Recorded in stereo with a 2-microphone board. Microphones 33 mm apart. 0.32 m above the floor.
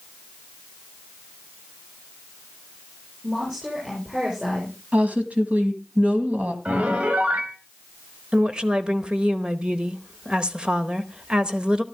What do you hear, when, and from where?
3.2 s a woman speaking: 15° right (ahead or behind), 7 m
4.9 s a woman speaking: 40° right (ahead or behind), 2 m
6.7 s a piano: 40° right (ahead or behind), 1.3 m
8.3 s a woman speaking: 25° right (ahead or behind), 0.9 m